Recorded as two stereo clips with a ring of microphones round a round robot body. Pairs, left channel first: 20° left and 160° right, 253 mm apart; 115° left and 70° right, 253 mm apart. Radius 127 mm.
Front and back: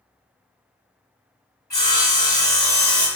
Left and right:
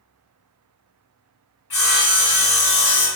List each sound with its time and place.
1.7 s sawing: 100° left, 1.9 m